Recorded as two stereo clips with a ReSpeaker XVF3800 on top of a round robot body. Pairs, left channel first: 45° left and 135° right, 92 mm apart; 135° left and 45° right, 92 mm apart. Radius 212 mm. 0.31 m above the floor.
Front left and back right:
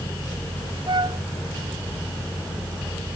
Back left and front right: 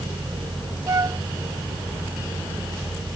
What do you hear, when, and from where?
0.9 s a flute: 100° right